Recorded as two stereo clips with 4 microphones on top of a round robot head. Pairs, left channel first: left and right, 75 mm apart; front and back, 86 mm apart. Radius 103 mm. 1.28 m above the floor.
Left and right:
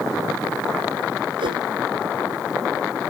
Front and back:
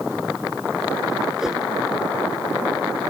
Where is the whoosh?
95° right.